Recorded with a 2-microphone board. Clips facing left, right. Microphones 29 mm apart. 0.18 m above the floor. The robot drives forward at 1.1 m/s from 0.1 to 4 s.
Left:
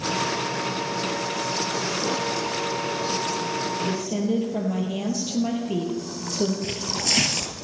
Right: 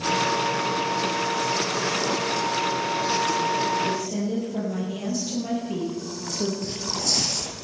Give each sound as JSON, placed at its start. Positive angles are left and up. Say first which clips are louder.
{"t": 3.8, "sound": "a woman speaking", "louder": "even", "side_deg": 25, "distance_m": 4.0}
{"t": 6.6, "sound": "tearing paper", "louder": "left 1 dB", "side_deg": 70, "distance_m": 1.2}